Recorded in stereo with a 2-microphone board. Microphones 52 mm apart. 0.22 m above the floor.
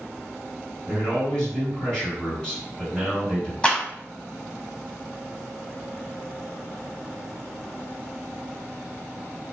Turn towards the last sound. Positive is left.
turn(degrees=20)  # may be behind; listen again after turning